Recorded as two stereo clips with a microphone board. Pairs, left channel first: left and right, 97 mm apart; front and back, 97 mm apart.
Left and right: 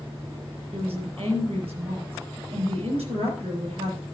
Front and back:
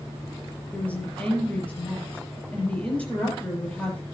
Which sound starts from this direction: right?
A woman speaking, at 0.7 s.